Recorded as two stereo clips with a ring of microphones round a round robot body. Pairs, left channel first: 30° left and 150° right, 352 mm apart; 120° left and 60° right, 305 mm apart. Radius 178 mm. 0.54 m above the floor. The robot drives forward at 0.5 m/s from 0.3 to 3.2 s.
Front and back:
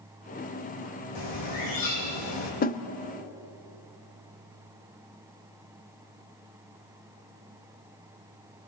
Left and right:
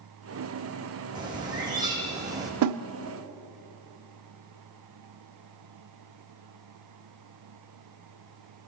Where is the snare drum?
35° right, 0.9 m; by 2.8 s 40° right, 0.8 m.